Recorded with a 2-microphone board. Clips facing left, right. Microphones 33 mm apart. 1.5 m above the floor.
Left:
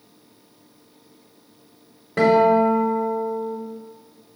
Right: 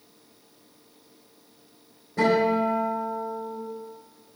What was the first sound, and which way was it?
A guitar, 75° left (ahead or behind).